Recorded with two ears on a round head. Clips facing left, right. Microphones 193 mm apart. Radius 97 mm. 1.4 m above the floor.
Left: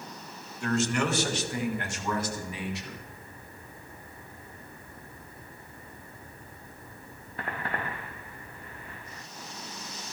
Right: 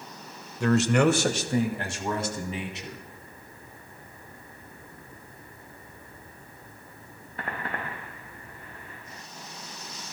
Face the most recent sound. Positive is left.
turn(degrees=-20)  # may be behind; listen again after turning